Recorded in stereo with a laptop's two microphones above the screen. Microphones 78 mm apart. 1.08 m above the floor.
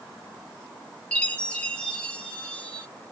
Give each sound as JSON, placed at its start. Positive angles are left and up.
{"t": 1.1, "sound": "a chime", "side_deg": 15, "distance_m": 0.7}